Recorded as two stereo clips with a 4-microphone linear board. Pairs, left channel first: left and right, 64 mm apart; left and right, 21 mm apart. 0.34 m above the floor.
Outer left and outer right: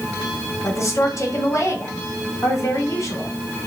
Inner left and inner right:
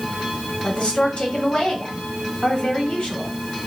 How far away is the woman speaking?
About 1.9 m.